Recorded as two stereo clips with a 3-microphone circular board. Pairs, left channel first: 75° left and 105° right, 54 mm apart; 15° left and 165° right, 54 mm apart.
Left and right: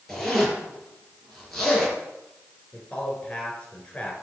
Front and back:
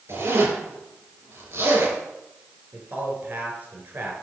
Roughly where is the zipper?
Behind.